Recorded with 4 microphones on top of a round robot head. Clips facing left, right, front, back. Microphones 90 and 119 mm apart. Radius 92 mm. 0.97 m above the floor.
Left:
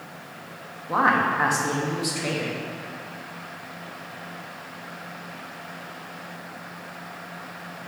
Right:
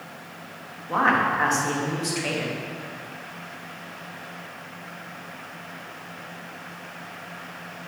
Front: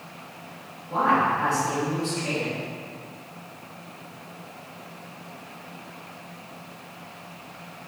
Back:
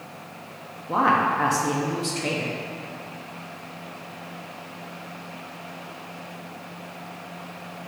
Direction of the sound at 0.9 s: 170° left.